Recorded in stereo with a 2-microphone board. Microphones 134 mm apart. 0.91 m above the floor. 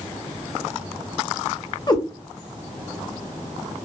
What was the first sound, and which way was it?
A cat meowing, 30° left (ahead or behind).